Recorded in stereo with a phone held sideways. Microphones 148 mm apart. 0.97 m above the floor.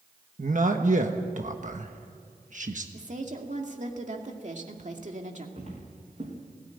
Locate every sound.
0.4 s a man speaking: 60° right (ahead or behind), 1.3 m
2.9 s a woman speaking: 55° right (ahead or behind), 2 m
5.6 s footsteps: 50° right (ahead or behind), 6 m